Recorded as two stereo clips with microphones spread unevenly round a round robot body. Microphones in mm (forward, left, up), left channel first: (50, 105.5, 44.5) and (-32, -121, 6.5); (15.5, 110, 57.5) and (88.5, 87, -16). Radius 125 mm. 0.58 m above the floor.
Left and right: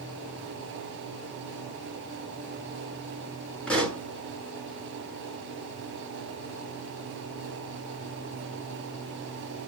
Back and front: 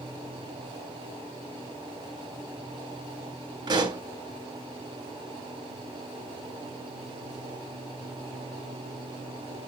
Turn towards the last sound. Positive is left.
turn(degrees=-15)